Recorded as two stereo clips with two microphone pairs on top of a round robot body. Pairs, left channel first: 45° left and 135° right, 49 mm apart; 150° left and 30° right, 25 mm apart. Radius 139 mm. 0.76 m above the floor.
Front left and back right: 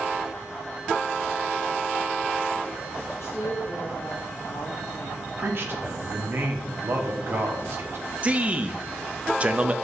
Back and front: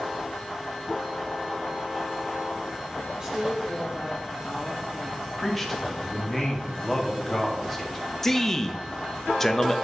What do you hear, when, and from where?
3.2 s a woman speaking: 35° left, 1.5 m
5.4 s a man speaking: 125° right, 2 m
8.2 s a man speaking: 140° right, 1.2 m